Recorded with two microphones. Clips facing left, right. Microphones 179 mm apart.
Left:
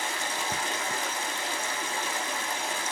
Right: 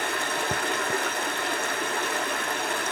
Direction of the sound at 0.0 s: 65° right (ahead or behind).